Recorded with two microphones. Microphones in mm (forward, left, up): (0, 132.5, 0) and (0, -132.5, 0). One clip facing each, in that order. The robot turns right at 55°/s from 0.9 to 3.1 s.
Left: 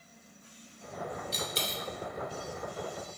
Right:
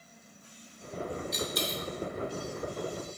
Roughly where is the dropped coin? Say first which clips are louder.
Right 4 dB; left.